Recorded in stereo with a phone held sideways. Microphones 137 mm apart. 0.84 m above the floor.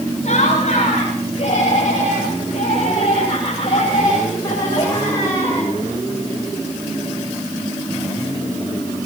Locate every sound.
0.2 s laughter: 55° left (ahead or behind), 7 m; by 5.7 s 20° left (ahead or behind), 4 m